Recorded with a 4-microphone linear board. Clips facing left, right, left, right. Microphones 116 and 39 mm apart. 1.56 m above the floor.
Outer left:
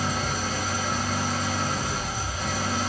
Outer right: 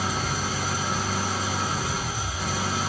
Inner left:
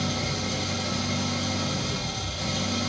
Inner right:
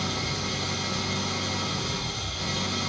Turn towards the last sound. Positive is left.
turn(degrees=-5)  # may be behind; listen again after turning